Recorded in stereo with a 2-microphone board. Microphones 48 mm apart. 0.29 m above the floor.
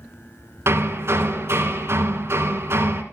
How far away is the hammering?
About 2 m.